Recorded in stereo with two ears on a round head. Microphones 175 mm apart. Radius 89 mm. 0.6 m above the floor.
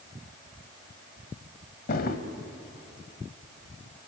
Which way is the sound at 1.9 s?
50° left (ahead or behind).